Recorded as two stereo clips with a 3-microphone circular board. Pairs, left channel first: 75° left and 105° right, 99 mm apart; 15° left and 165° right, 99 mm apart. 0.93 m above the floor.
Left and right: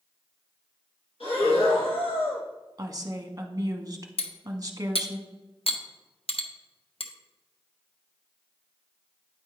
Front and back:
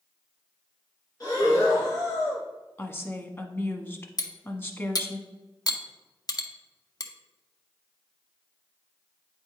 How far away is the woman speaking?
About 1.0 m.